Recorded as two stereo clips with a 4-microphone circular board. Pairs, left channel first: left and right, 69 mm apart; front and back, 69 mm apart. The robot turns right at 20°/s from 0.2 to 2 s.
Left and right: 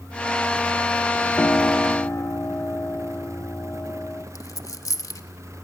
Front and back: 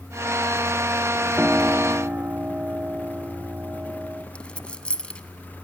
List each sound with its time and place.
1.4 s a piano: 115° left, 0.7 m; by 4.2 s 125° left, 0.7 m
4.3 s a dropped coin: 70° left, 0.9 m